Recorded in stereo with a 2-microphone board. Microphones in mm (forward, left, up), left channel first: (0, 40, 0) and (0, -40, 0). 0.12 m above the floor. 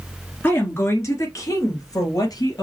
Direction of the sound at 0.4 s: 25° left (ahead or behind).